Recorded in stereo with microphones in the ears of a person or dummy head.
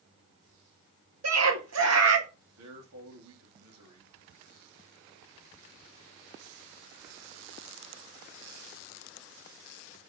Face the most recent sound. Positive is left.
turn(degrees=-80)